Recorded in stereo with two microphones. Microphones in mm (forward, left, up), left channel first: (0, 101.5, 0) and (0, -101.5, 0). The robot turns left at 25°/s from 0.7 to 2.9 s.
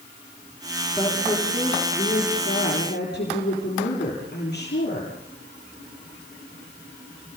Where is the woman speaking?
170° left, 7.5 m; by 5.1 s 120° left, 7.5 m.